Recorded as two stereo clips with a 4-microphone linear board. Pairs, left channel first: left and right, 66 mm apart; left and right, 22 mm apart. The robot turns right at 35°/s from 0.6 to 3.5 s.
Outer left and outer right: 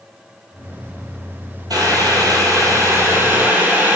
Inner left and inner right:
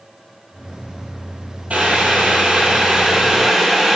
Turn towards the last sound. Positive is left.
turn(degrees=-25)